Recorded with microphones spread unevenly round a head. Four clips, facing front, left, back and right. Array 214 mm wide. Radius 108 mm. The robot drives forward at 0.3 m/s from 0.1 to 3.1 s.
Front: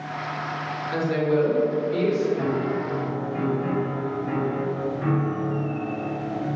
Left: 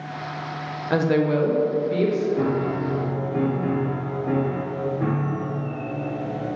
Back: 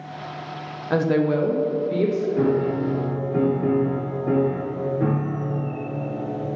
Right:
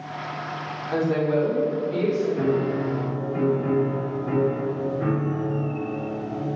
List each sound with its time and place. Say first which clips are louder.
0.9 s a woman speaking: left 2 dB, back 3 dB; 120° left, 0.8 m; by 2.3 s 140° left, 1.0 m
2.4 s a piano: even, back 4 dB; 155° left, 0.7 m; by 6.5 s 160° left, 0.9 m